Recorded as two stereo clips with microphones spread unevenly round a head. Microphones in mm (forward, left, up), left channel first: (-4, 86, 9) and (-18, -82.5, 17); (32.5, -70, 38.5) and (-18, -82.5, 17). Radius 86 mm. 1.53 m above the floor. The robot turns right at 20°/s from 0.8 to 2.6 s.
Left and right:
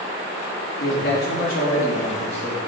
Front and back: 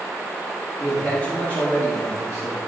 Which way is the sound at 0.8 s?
110° left.